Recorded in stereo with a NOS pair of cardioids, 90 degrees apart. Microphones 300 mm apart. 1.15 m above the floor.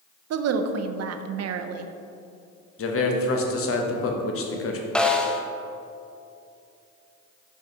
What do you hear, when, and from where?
0.3 s a woman speaking: 55° right, 0.6 m
2.8 s a man speaking: 45° left, 1.1 m
5.0 s a snare drum: 5° left, 0.6 m